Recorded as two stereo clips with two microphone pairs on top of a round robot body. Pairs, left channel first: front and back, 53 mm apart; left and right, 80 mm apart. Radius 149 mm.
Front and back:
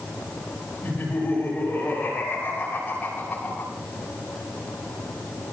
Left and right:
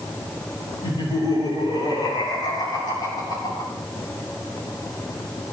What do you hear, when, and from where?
0.8 s laughter: 65° left, 9.5 m; by 3.7 s 70° left, 6.5 m